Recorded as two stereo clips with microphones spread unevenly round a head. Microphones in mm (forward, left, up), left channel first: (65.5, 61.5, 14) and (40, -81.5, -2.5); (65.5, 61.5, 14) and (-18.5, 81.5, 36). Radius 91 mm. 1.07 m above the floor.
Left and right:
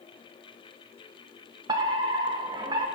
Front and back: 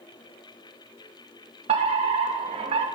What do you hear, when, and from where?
1.7 s a fire alarm: 165° right, 3 m